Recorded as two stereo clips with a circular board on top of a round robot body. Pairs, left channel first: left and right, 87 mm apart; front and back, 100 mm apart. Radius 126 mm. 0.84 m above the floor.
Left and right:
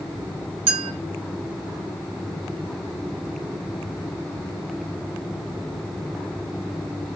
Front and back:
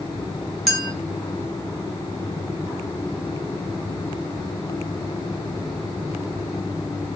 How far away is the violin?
I don't hear a violin.